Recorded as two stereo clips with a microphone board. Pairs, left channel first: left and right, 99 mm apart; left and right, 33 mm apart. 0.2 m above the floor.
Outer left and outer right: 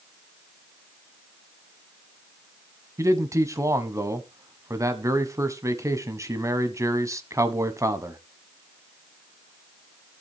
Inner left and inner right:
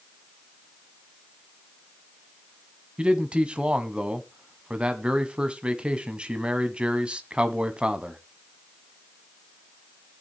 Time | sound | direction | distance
3.0 | a man speaking | 30° right (ahead or behind) | 1.2 m